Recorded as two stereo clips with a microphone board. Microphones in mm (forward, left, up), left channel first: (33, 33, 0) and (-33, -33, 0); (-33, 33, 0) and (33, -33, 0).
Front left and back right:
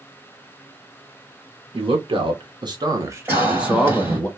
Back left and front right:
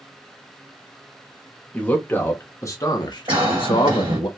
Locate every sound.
1.7 s a man speaking: 150° right, 1.5 m; by 4.3 s 120° left, 1.1 m
3.3 s a cough: 75° right, 1.9 m